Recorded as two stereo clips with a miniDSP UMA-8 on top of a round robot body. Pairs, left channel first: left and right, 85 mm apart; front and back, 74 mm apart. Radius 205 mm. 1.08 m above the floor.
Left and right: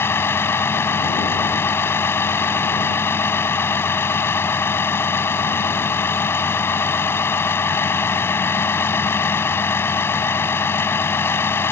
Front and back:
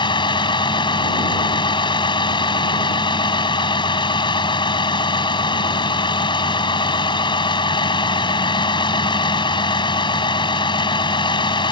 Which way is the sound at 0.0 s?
25° left.